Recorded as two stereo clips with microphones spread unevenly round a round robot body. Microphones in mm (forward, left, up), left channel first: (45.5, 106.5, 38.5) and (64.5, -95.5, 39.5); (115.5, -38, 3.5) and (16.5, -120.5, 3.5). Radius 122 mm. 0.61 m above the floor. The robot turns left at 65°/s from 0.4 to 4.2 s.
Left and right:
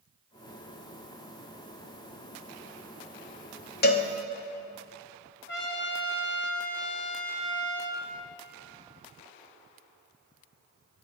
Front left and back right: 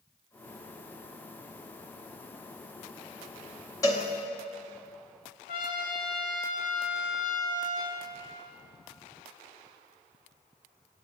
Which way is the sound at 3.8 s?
100° left.